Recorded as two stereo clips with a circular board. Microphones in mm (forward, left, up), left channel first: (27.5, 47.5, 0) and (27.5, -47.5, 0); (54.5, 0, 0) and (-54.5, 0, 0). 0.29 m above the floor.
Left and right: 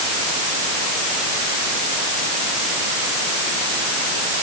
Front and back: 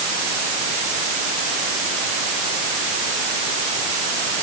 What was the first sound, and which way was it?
Only background noise.